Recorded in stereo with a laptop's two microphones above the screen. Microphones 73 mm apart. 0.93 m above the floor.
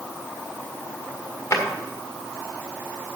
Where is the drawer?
45° left (ahead or behind), 1.7 m.